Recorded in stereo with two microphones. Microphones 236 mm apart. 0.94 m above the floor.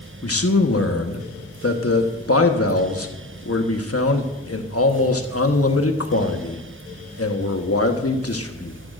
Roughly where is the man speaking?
Left.